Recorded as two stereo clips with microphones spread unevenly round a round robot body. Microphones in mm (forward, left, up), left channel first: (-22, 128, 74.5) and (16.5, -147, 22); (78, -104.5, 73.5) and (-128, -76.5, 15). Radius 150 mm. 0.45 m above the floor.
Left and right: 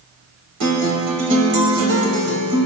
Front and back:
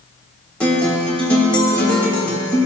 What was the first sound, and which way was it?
A guitar, 100° right.